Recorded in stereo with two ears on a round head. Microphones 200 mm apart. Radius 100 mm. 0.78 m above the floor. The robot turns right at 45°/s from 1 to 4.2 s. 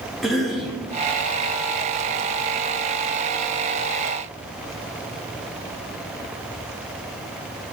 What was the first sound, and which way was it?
A cough, centre (ahead or behind).